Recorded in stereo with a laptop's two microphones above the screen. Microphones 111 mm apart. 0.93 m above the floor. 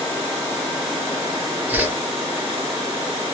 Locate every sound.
1.7 s a whoosh: 15° right (ahead or behind), 0.6 m